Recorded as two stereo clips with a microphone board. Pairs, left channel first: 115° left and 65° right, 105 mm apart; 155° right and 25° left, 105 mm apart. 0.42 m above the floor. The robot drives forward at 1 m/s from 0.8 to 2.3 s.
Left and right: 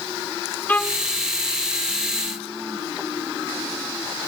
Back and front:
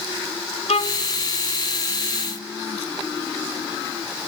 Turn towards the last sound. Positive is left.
turn(degrees=180)